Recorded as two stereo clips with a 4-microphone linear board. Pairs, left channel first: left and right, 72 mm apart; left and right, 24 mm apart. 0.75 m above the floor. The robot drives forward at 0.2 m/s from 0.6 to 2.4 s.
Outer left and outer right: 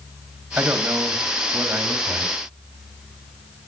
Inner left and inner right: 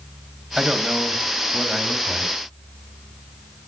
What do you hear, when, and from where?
0.6 s a man speaking: 25° right (ahead or behind), 4.5 m